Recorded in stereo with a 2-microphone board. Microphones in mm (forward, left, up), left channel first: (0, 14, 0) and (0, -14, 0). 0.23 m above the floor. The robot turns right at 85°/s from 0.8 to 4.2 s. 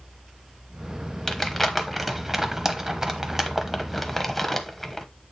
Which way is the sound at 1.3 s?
15° left (ahead or behind).